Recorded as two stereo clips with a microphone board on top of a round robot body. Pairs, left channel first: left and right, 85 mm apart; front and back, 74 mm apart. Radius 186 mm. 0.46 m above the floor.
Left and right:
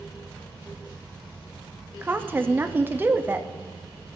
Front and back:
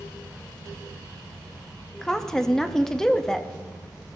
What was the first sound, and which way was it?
A woman speaking, 75° right.